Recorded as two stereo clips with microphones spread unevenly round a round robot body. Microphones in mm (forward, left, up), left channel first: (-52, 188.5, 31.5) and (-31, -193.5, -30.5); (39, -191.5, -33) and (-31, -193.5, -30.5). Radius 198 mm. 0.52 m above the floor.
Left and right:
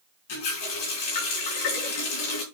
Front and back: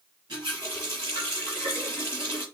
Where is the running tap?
120° left, 4.5 m.